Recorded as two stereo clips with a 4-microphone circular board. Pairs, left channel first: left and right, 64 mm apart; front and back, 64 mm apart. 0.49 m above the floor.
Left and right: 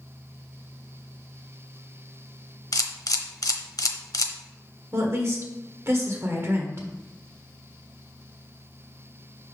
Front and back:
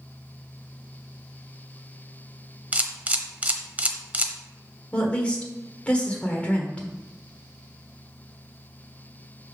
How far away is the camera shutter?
About 0.8 m.